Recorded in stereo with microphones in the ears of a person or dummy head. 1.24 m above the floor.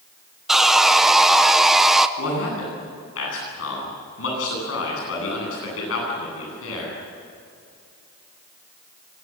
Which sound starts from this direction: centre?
Sawing, at 0.5 s.